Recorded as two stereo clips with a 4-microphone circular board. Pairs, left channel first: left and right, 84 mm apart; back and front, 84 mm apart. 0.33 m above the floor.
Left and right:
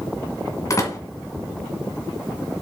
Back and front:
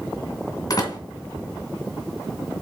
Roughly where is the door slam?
Behind left.